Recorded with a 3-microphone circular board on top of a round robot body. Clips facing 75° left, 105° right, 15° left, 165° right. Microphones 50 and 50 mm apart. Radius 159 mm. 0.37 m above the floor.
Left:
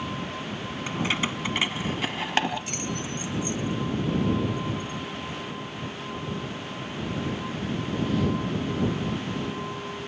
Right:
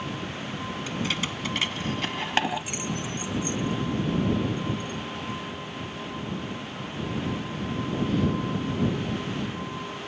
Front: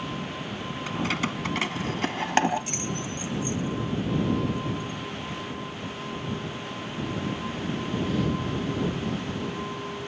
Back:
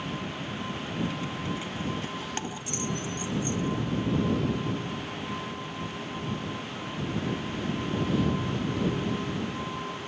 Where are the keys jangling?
15° left; by 5.4 s 80° right.